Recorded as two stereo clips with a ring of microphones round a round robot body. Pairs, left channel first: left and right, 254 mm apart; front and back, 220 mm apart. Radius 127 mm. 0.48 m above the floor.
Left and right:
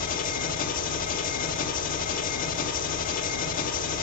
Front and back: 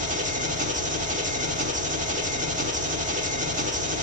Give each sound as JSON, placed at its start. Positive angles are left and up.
{"t": 0.0, "sound": "an engine running", "azimuth_deg": 135, "distance_m": 0.9}